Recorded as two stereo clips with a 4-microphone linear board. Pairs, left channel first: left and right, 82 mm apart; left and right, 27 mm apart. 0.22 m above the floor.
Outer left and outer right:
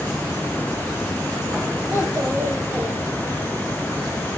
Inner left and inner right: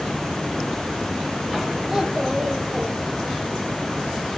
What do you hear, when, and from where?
1.9 s a child speaking: 30° right (ahead or behind), 6.5 m